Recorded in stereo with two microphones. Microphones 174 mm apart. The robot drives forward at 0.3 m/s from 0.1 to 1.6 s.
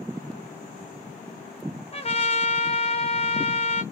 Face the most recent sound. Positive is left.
turn(degrees=35)  # may be behind; listen again after turning